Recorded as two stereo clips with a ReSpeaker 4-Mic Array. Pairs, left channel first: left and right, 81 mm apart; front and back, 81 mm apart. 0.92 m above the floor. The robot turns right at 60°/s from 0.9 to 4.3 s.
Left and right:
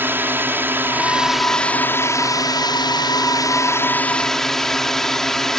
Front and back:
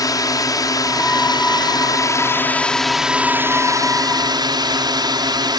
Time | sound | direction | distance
0.0 | a drone | 30° right | ?